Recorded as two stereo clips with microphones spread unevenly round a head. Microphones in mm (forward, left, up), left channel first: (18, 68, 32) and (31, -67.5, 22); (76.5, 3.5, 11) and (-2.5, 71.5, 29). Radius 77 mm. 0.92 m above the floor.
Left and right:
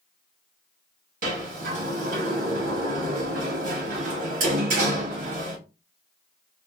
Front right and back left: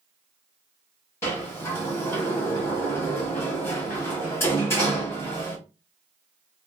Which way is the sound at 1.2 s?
110° right.